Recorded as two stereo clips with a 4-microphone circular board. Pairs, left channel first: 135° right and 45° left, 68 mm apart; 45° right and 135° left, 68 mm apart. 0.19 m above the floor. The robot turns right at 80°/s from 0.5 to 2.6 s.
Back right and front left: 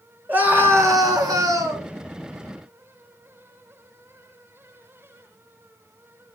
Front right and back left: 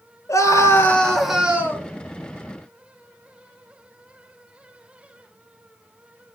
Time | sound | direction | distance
0.3 | a scream | 15° right | 3.5 m